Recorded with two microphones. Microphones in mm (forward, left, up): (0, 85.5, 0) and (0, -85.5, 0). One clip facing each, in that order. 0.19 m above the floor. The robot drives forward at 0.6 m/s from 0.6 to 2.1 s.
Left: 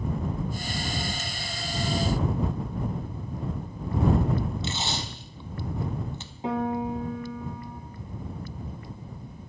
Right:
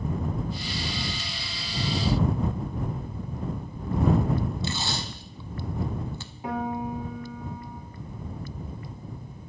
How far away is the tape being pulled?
About 0.5 m.